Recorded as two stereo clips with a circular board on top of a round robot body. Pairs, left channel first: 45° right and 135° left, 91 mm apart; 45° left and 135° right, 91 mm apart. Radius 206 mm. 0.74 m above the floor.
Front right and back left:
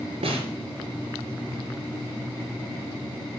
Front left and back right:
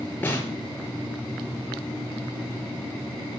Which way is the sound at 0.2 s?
115° left.